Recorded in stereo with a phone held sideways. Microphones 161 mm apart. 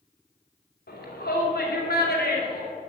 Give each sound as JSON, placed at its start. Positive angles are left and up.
{"t": 0.9, "sound": "a shout", "side_deg": 85, "distance_m": 3.5}